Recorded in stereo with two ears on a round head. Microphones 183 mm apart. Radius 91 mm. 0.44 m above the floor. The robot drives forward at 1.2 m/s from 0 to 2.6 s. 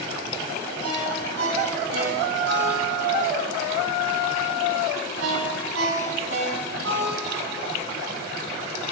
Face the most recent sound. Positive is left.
turn(degrees=-75)  # may be behind; listen again after turning